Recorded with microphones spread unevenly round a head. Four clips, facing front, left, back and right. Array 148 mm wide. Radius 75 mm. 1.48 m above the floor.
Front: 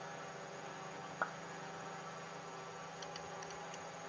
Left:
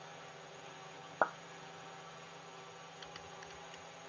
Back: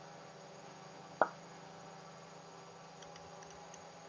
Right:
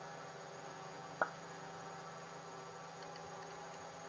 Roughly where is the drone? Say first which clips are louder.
Right 2 dB, front 5 dB; ahead.